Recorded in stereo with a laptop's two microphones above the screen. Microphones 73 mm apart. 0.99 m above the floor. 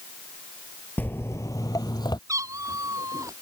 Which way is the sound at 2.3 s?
45° right (ahead or behind).